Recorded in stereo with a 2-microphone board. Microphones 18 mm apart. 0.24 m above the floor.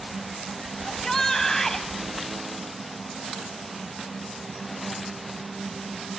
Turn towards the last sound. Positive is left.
turn(degrees=25)  # may be behind; listen again after turning